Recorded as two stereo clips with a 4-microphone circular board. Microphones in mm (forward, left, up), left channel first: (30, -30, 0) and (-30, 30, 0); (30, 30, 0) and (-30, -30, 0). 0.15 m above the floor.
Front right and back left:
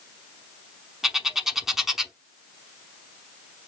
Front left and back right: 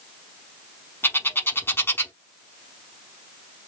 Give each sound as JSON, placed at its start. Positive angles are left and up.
{"t": 1.0, "sound": "a bird", "azimuth_deg": 55, "distance_m": 0.7}